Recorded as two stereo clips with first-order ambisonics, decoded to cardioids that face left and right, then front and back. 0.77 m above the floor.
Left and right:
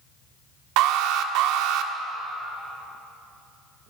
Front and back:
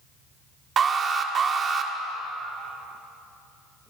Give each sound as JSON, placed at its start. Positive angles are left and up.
{"t": 0.8, "sound": "an alarm", "azimuth_deg": -115, "distance_m": 1.5}